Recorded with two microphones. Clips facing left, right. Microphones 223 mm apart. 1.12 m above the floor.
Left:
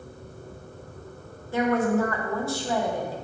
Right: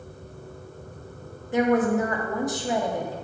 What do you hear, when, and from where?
1.5 s a woman speaking: 20° right (ahead or behind), 1.0 m